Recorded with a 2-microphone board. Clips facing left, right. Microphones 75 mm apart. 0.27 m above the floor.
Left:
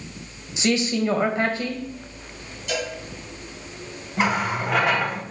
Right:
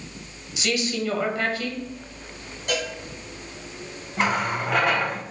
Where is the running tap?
Centre (ahead or behind), 0.8 m.